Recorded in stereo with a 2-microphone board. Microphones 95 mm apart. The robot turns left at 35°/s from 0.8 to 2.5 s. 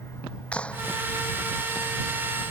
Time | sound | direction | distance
0.5 | a clap | 10° left (ahead or behind) | ?